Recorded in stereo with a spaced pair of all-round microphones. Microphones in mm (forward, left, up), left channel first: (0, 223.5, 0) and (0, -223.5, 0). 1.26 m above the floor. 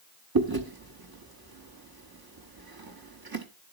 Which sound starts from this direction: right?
Chewing, at 0.3 s.